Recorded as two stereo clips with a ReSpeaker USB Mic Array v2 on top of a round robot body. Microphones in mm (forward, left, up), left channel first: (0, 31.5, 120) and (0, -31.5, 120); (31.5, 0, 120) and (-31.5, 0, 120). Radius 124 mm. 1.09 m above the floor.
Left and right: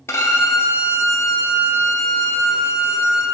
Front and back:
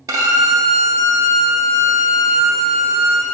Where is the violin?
140° left, 0.6 m.